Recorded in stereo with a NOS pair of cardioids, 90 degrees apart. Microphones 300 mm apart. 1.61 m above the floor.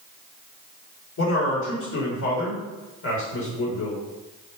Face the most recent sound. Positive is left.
turn(degrees=65)